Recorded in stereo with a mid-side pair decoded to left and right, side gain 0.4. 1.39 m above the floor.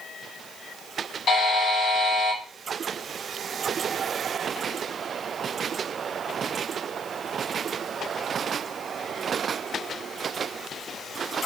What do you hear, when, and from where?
1.3 s a buzzer: 60° left, 1.0 m